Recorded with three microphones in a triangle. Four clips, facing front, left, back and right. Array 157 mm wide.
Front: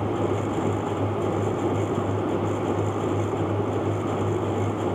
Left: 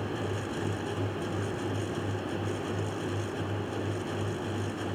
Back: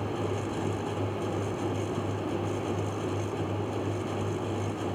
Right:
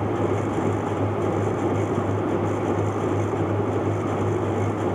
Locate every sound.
Only background noise.